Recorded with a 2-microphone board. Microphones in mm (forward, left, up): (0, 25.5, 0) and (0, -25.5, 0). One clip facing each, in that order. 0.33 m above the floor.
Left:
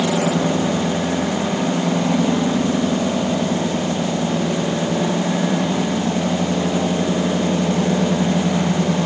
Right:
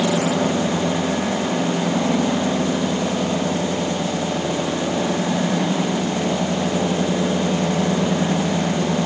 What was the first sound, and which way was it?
Only background noise.